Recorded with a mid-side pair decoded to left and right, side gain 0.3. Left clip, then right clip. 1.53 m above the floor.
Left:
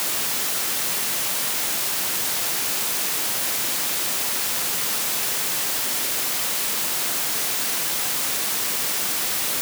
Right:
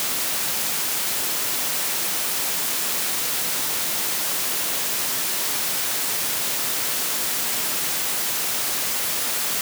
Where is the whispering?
No whispering in this recording.